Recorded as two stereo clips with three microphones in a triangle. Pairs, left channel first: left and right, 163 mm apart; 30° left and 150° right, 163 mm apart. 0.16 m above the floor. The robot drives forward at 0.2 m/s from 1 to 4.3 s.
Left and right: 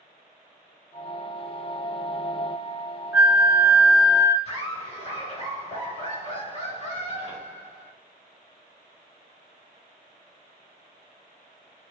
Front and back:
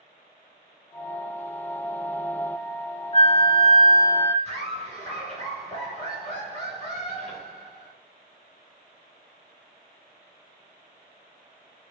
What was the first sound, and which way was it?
A flute, 15° right.